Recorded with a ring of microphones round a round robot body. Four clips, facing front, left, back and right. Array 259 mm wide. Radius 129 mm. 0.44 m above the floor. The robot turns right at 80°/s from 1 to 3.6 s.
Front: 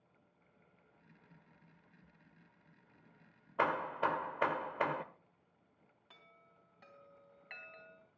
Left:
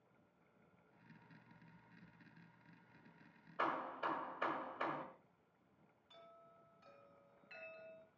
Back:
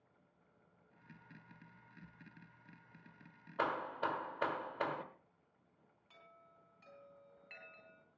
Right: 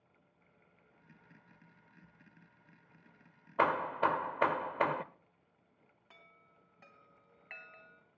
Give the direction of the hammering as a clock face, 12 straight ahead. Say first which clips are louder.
Right 11 dB, front 4 dB; 3 o'clock.